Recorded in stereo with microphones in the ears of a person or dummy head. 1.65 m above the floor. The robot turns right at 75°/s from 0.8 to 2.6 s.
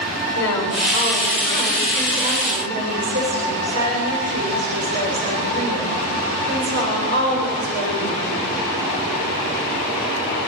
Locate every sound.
0.3 s a woman speaking: 100° left, 8 m; by 8.3 s 125° right, 8 m